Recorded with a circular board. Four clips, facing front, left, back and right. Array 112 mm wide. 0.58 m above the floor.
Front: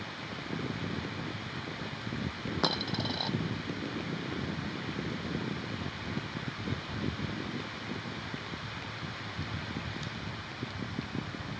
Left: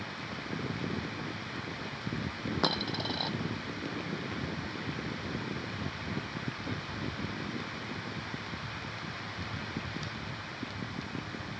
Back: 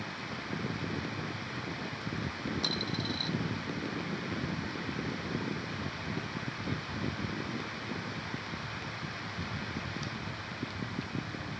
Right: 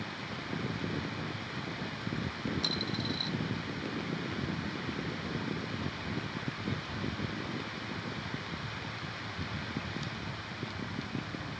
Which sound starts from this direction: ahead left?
A dropped coin, at 2.6 s.